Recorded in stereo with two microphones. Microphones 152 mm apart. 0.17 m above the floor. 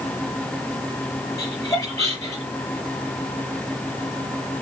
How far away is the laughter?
About 4 m.